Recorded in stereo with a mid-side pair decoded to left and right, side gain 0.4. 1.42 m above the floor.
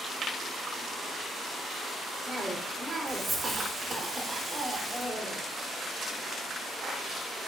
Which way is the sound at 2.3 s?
20° right.